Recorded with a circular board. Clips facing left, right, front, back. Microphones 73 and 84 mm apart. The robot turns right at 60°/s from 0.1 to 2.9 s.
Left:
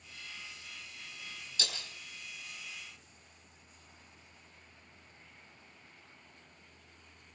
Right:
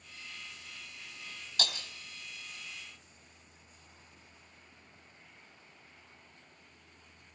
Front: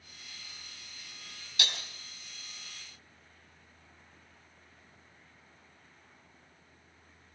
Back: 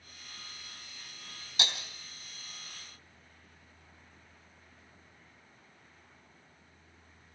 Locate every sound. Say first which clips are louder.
1.6 s breaking glass: right 4 dB, back 1 dB; 115° right, 3 m; by 1.8 s 100° right, 3 m